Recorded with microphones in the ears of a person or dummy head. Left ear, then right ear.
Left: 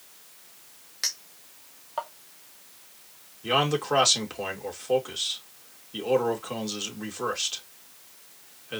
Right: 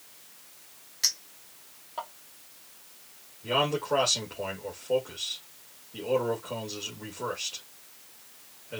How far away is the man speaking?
About 2.5 m.